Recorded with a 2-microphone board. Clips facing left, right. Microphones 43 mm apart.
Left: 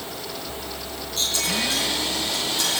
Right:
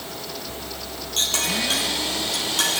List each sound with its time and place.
1.2 s a clink: 65° right (ahead or behind), 3 m